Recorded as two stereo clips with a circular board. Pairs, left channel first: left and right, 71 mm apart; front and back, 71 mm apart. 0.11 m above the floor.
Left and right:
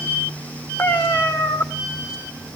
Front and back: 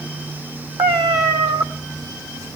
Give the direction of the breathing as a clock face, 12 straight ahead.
No breathing in this recording.